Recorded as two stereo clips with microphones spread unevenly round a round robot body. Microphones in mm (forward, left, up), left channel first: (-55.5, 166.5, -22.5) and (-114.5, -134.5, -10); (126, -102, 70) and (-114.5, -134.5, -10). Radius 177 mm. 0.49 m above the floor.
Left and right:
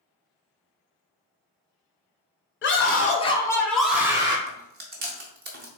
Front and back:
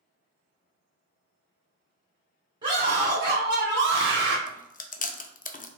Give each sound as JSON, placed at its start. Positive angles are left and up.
{"t": 2.6, "sound": "a scream", "azimuth_deg": 125, "distance_m": 1.6}
{"t": 4.5, "sound": "chewing", "azimuth_deg": -60, "distance_m": 0.6}